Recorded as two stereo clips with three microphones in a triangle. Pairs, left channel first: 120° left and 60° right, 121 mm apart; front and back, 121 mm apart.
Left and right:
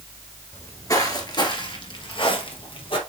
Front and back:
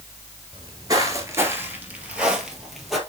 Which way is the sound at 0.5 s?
170° left.